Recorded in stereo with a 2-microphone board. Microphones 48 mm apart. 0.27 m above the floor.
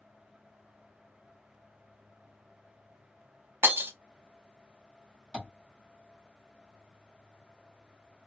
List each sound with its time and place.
3.6 s breaking glass: 60° right (ahead or behind), 0.5 m
5.3 s tapping: 15° right (ahead or behind), 1.9 m